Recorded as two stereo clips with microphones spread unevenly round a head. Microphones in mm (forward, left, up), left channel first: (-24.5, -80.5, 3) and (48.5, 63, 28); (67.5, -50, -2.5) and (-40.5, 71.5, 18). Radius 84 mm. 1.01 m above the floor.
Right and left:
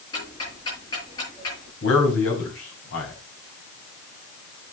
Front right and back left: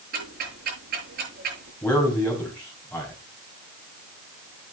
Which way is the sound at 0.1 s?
175° left.